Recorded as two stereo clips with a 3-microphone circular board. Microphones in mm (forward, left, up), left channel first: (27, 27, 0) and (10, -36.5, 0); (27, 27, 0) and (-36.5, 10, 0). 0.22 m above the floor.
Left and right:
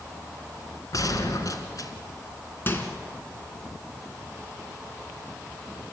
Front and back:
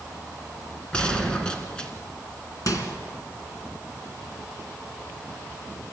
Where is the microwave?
25° left, 2 m.